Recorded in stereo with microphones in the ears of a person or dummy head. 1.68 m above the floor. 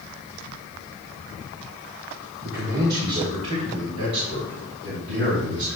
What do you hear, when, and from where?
2.4 s a man speaking: 45° right (ahead or behind), 1.2 m; by 5.8 s 65° right (ahead or behind), 4.5 m